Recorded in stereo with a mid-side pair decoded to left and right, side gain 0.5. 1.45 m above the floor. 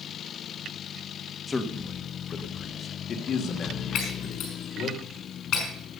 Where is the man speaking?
30° left, 1.9 m; by 5.0 s 70° left, 3 m.